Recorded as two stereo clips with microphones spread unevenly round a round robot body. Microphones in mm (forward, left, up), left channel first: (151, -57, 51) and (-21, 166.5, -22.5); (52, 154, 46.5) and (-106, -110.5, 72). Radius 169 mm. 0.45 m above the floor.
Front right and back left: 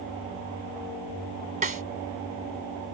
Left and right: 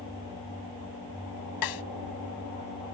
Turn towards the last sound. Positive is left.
turn(degrees=65)